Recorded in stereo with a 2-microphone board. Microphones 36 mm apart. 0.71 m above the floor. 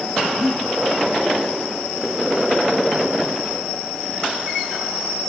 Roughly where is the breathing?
Centre.